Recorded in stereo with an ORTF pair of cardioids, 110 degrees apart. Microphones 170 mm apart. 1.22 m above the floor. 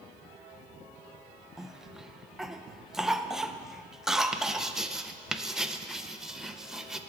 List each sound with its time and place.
1.6 s a cough: 5° right, 0.5 m
4.3 s writing: 5° right, 0.5 m